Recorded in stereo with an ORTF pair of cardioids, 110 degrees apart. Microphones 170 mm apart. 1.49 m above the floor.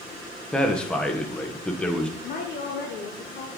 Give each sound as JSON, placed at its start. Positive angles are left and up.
{"t": 0.5, "sound": "a man speaking", "azimuth_deg": 5, "distance_m": 1.0}
{"t": 2.2, "sound": "a woman speaking", "azimuth_deg": 65, "distance_m": 0.9}